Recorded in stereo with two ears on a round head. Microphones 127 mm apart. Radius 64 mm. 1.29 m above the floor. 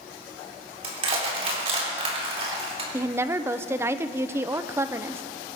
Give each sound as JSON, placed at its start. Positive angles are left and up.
{"t": 0.8, "sound": "crushing", "side_deg": -40, "distance_m": 3.5}
{"t": 2.9, "sound": "a woman speaking", "side_deg": -15, "distance_m": 0.5}